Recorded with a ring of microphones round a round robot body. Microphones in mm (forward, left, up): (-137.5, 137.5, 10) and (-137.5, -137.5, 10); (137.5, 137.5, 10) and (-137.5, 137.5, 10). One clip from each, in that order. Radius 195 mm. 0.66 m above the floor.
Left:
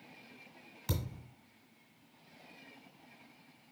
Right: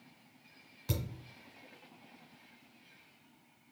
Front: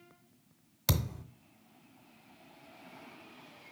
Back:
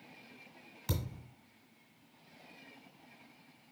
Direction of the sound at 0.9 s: 10° left.